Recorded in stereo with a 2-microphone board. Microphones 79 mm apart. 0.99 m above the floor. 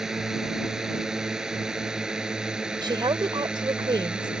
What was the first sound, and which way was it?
A drone, 5° right (ahead or behind).